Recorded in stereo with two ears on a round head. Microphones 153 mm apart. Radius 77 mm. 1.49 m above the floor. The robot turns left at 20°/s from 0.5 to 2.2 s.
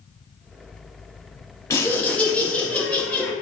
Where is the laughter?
20° left (ahead or behind), 0.7 m; by 3.3 s 10° left (ahead or behind), 0.7 m.